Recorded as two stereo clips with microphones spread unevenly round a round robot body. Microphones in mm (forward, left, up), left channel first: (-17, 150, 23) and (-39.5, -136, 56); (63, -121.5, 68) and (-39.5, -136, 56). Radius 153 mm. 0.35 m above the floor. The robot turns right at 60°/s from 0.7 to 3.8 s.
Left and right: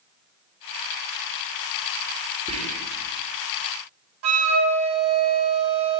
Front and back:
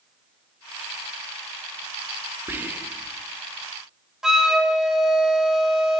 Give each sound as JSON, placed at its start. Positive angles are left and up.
{"t": 2.5, "sound": "whispering", "azimuth_deg": -155, "distance_m": 0.8}
{"t": 4.2, "sound": "a flute", "azimuth_deg": -95, "distance_m": 1.0}